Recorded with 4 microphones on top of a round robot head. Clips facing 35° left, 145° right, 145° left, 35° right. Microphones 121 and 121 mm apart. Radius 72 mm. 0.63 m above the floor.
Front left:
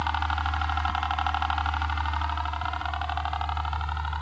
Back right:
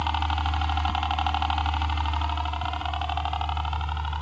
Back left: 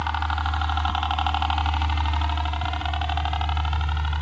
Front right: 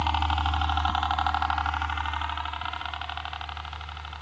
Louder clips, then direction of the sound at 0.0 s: Back right 1 dB, even; 85° right.